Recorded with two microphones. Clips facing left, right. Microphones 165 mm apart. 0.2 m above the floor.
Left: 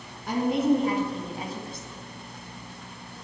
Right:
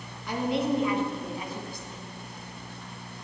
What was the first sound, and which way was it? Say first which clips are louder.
A woman speaking: left 4 dB; 50° left (ahead or behind).